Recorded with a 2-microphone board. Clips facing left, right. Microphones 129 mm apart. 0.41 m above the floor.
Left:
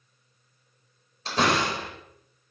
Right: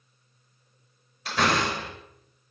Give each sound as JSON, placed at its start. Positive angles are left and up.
{"t": 1.2, "sound": "a door slam", "side_deg": 30, "distance_m": 4.5}